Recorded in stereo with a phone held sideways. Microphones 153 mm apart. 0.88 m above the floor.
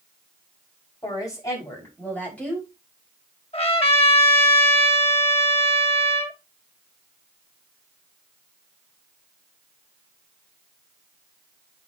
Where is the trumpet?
40° left (ahead or behind), 1.5 m.